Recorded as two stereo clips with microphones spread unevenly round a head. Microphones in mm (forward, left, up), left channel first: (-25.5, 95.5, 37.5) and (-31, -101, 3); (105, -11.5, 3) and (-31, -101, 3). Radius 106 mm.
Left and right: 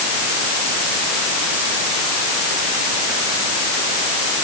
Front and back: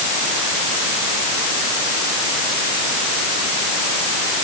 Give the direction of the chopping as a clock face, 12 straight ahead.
No chopping in this recording.